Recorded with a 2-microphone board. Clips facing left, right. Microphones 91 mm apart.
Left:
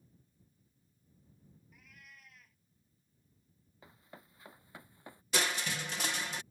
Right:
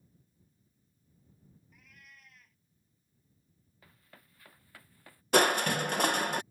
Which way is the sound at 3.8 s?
20° left (ahead or behind).